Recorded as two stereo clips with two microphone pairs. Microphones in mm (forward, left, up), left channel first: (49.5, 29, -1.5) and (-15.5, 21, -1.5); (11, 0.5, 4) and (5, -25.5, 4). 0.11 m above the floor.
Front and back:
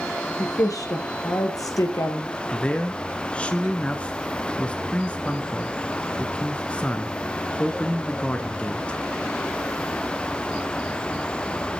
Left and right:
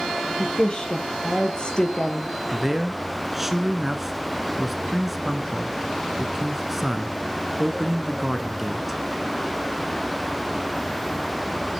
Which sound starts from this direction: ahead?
A woman speaking, at 0.4 s.